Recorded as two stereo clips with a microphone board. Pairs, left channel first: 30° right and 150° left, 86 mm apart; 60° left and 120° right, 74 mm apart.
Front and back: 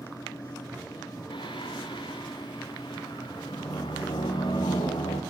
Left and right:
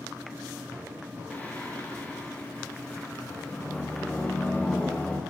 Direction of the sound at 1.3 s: 15° right.